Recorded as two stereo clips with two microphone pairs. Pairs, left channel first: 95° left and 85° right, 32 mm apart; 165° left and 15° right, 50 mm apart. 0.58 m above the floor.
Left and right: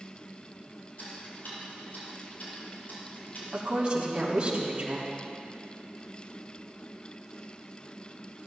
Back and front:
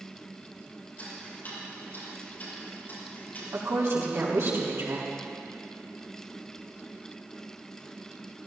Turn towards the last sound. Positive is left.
turn(degrees=-25)